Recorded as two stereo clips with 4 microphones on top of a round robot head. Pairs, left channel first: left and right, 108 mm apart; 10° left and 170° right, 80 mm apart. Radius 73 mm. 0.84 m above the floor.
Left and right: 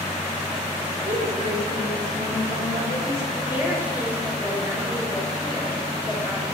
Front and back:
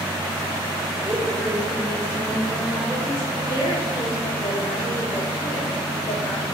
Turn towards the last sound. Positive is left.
turn(degrees=-15)